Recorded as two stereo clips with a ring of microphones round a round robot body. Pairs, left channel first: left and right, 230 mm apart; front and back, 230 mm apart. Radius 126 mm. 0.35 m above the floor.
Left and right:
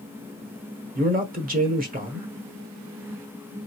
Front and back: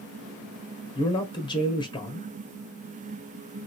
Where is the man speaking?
60° right, 1.2 m.